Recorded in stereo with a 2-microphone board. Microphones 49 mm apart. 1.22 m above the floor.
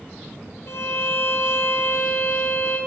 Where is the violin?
60° left (ahead or behind), 1.4 m.